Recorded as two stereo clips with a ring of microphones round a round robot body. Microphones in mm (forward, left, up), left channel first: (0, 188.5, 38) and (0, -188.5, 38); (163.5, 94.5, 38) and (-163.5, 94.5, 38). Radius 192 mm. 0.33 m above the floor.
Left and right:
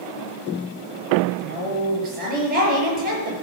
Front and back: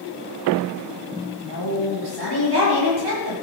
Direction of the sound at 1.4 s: 160° right.